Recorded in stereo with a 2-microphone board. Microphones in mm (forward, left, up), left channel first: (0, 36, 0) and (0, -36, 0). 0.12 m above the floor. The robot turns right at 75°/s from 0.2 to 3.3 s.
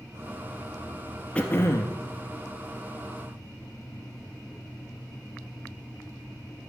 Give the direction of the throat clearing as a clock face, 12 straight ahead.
11 o'clock.